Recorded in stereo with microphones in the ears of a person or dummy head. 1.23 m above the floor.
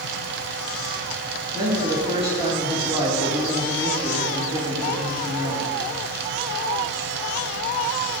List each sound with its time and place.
0.0 s a fan: 60° right (ahead or behind), 1.1 m
1.5 s a man speaking: 30° right (ahead or behind), 2.5 m